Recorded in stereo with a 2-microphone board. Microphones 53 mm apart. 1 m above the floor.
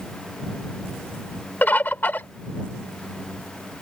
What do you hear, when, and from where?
1.6 s a bird: 40° left (ahead or behind)